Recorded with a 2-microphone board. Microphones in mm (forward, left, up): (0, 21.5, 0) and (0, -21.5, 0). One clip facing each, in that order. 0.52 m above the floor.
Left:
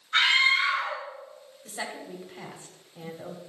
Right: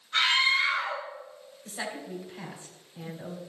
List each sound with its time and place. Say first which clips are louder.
0.1 s a scream: left 2 dB; 40° left (ahead or behind), 2.5 m
1.6 s a woman speaking: even; 25° left (ahead or behind), 1.7 m